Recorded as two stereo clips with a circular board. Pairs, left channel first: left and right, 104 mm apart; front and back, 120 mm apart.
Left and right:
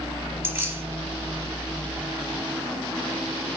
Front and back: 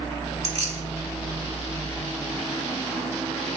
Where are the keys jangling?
155° right, 1.6 m.